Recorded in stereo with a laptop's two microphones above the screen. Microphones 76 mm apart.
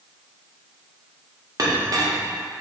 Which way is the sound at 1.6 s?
55° right (ahead or behind).